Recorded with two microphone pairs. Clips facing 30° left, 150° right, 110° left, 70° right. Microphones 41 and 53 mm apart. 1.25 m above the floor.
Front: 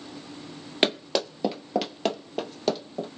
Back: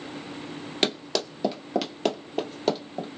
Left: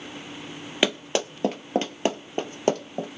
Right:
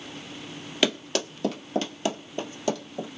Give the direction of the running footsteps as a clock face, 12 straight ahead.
10 o'clock.